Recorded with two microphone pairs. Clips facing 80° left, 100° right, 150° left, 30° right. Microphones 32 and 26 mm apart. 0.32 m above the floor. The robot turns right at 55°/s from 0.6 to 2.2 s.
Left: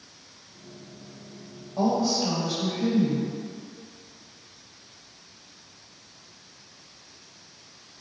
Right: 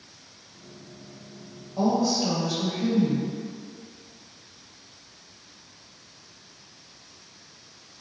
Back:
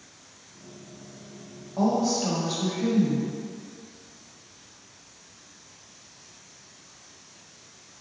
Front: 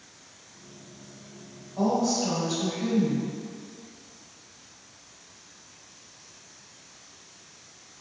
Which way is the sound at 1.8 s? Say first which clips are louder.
Right 1 dB, back 1 dB; 135° left.